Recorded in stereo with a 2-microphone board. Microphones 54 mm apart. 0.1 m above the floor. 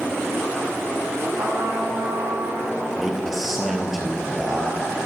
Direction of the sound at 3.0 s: Centre (ahead or behind).